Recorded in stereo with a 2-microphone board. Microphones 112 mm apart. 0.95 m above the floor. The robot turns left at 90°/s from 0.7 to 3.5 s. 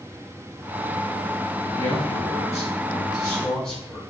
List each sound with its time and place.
1.7 s a man speaking: 170° left, 0.9 m; by 4.0 s 10° left, 0.9 m